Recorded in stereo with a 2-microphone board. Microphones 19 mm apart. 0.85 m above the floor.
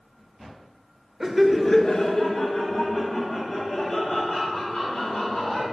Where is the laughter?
20° right (ahead or behind), 0.7 m; by 5.6 s 55° left (ahead or behind), 4 m.